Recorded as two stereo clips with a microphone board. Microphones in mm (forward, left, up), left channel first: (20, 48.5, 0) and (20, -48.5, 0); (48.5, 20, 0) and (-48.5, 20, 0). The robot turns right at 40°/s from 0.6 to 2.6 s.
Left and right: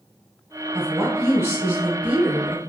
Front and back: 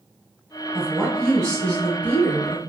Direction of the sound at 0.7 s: 95° right.